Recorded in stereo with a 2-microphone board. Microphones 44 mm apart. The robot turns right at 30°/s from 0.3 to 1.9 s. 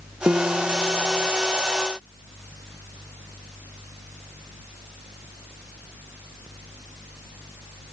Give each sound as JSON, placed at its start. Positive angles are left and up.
{"t": 0.3, "sound": "a piano", "azimuth_deg": -135}